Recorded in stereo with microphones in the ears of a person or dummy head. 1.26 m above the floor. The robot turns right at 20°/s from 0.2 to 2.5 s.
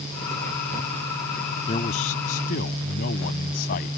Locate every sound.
1.7 s a man speaking: 35° left (ahead or behind); by 3.9 s 50° left (ahead or behind)